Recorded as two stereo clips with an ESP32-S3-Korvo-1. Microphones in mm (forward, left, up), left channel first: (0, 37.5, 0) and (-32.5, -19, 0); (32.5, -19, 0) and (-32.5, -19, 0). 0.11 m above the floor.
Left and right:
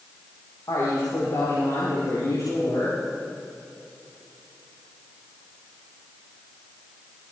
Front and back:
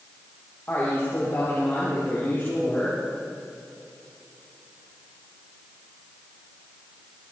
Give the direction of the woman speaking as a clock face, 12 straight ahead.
10 o'clock.